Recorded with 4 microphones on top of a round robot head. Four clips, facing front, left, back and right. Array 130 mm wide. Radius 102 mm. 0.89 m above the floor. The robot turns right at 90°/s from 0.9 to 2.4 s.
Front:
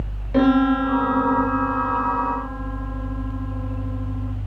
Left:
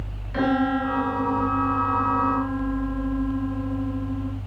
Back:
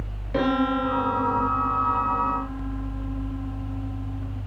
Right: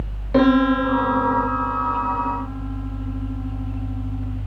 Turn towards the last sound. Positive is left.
turn(degrees=45)